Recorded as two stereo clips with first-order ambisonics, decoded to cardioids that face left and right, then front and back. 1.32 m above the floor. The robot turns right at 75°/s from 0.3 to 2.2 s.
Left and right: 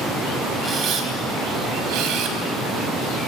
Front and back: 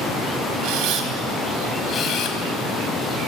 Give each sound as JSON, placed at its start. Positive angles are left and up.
{"t": 0.6, "sound": "a camera shutter", "azimuth_deg": -165, "distance_m": 4.0}